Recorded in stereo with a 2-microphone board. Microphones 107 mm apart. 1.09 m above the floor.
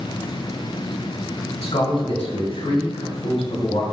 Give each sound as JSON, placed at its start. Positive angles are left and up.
{"t": 1.6, "sound": "a man speaking", "side_deg": 65, "distance_m": 0.9}